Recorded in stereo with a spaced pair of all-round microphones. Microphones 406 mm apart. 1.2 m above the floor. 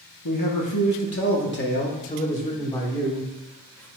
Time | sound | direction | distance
0.2 | a man speaking | 55° left (ahead or behind) | 1.1 m